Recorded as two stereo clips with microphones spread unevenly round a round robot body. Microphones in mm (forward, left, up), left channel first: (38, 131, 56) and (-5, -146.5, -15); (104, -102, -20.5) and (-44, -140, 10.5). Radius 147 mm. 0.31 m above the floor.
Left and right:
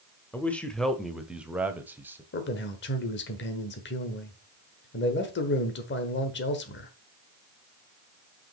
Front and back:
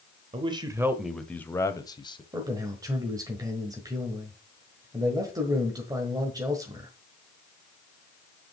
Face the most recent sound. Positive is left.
turn(degrees=125)